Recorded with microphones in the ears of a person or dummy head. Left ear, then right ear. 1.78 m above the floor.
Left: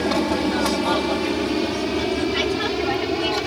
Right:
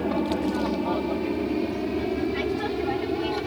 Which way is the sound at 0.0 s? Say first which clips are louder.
Left 5 dB; 70° left (ahead or behind).